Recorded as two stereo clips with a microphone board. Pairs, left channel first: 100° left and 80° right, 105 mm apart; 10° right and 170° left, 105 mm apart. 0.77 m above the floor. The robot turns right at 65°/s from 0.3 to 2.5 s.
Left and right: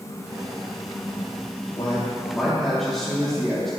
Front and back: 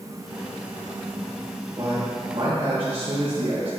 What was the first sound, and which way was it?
A man speaking, 140° left.